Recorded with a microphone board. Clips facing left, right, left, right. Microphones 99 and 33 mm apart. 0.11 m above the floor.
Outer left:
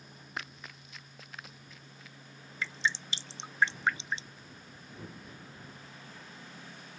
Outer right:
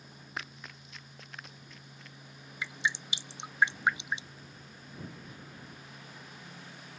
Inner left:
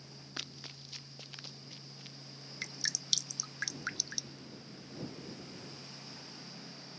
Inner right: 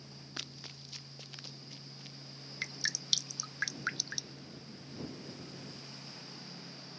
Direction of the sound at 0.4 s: Centre (ahead or behind).